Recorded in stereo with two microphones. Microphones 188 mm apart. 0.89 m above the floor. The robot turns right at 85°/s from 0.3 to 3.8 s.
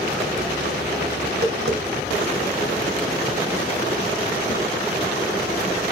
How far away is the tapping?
About 2.5 m.